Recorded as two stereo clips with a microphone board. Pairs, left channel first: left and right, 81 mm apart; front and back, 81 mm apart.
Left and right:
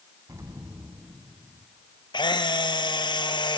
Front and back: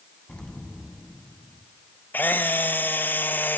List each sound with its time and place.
0.3 s an explosion: 75° right, 1.6 m
2.1 s a camera shutter: 65° left, 1.5 m